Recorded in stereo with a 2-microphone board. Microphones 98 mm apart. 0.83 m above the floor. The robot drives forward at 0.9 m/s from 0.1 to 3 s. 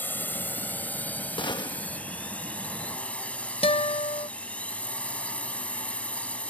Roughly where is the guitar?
Left.